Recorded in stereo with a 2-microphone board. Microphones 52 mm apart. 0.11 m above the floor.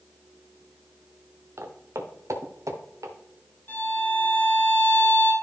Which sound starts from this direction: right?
Footsteps, at 1.6 s.